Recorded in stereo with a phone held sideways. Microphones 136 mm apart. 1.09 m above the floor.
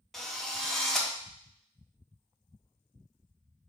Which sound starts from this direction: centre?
A drill, at 0.1 s.